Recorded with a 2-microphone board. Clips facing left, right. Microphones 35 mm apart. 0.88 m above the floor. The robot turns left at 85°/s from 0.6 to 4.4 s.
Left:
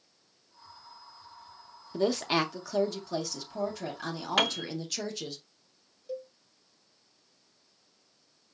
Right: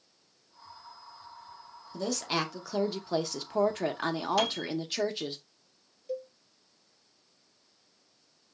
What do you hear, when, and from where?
1.9 s a woman speaking: 55° left, 0.9 m; by 5.4 s 155° right, 0.9 m
4.4 s a piano: 55° left (ahead or behind), 0.6 m
6.1 s a cowbell: 5° left (ahead or behind), 0.7 m